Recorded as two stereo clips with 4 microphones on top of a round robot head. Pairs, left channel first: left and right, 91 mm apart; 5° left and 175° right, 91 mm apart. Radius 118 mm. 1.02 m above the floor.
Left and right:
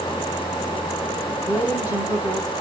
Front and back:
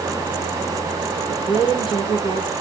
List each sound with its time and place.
1.1 s a woman speaking: 25° right, 9 m